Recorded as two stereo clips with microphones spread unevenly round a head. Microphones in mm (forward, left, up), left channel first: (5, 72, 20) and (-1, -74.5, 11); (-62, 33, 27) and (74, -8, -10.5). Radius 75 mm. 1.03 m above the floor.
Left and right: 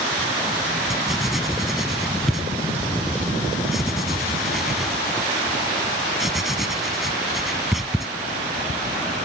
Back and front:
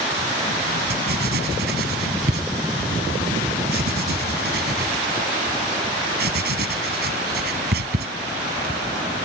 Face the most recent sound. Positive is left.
turn(degrees=0)